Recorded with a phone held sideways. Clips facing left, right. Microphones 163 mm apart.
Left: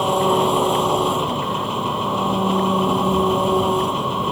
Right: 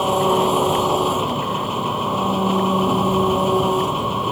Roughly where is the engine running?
Centre.